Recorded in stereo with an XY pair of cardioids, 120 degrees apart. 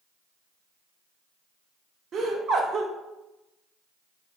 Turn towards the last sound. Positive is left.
turn(degrees=-50)